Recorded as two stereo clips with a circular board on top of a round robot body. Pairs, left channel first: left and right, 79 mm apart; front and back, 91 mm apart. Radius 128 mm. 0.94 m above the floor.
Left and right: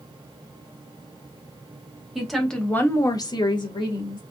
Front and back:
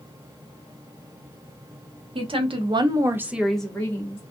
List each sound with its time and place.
2.1 s a woman speaking: 175° right, 1.0 m; by 4.2 s 65° left, 1.1 m